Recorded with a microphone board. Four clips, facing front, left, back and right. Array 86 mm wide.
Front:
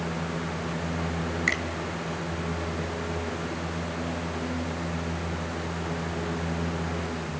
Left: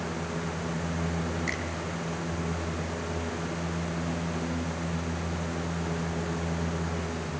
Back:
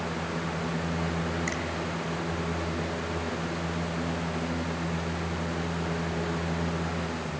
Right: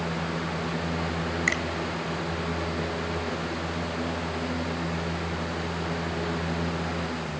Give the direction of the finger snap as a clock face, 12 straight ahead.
2 o'clock.